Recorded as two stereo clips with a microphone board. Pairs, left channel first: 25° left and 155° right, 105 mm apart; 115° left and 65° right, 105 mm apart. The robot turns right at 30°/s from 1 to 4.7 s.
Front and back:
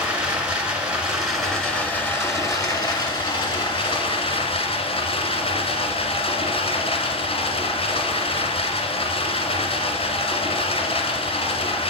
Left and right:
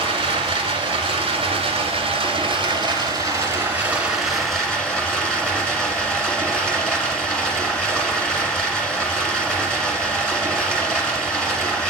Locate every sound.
0.0 s running water: 80° right, 1.9 m; by 11.9 s 30° left, 1.9 m